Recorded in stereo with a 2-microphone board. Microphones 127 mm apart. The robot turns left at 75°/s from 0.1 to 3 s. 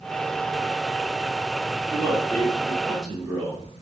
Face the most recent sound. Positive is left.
turn(degrees=0)  # may be behind; listen again after turning